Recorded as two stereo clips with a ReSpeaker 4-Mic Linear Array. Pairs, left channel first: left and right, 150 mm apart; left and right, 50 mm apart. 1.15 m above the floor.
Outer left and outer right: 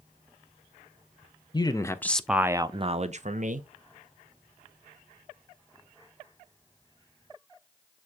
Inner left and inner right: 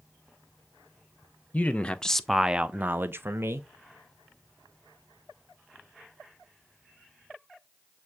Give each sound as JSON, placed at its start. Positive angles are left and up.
{"t": 1.5, "sound": "a man speaking", "side_deg": 30, "distance_m": 0.7}